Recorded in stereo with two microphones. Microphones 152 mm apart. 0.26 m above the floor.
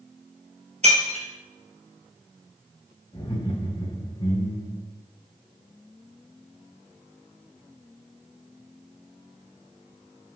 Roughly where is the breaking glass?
Right.